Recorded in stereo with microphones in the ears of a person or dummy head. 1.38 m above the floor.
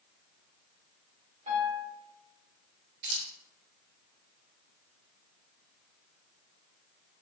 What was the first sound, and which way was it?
A piano, 25° right (ahead or behind).